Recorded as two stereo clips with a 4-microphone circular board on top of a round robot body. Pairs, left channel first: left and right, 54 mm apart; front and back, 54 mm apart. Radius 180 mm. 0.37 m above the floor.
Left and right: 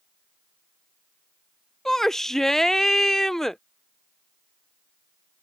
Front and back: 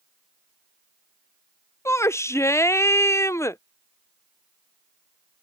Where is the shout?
10° left.